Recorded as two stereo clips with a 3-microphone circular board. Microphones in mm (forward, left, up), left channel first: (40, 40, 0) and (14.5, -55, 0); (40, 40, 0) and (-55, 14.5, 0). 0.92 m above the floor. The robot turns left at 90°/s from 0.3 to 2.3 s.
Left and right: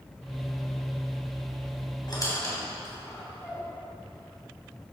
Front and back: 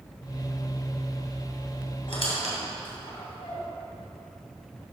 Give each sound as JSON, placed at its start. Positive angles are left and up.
{"t": 2.1, "sound": "a squeak", "azimuth_deg": 35, "distance_m": 2.5}